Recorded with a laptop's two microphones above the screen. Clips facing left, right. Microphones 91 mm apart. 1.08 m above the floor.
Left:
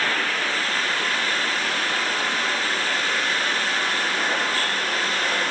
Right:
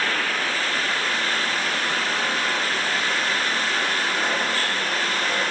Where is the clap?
No clap in this recording.